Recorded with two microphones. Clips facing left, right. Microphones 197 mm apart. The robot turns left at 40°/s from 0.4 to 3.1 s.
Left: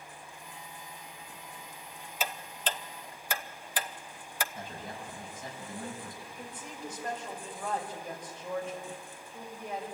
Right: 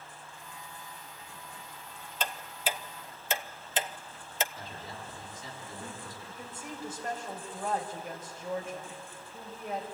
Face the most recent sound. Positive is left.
turn(degrees=-5)  # may be behind; listen again after turning